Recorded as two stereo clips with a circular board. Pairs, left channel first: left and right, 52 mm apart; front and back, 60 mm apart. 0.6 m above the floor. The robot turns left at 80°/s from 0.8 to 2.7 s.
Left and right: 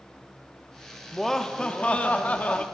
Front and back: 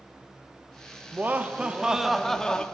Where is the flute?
I don't hear a flute.